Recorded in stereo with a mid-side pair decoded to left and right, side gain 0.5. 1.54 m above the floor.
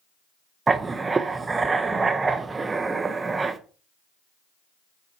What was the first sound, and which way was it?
Writing, 25° right.